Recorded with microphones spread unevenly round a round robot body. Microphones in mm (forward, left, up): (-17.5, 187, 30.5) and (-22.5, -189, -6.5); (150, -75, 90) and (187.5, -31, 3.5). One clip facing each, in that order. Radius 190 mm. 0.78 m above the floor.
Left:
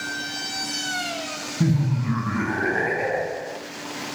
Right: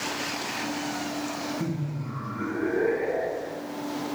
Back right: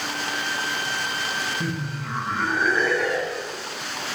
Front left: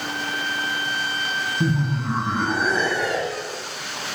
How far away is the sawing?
I don't hear sawing.